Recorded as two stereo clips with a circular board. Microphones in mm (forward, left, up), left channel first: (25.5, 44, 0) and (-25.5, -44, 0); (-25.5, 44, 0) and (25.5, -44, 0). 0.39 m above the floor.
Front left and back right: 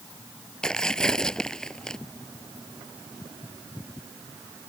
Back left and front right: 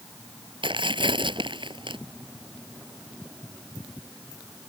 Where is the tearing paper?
25° right.